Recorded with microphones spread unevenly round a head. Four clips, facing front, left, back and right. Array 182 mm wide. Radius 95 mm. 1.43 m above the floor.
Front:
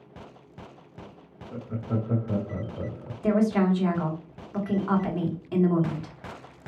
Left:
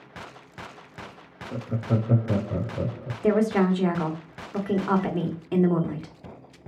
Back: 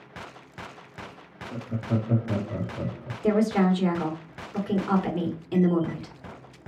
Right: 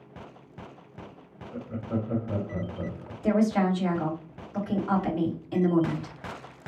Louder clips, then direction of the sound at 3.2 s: Left 2 dB, even; 105° left.